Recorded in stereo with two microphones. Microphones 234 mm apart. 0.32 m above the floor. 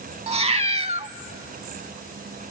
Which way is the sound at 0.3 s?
25° right (ahead or behind).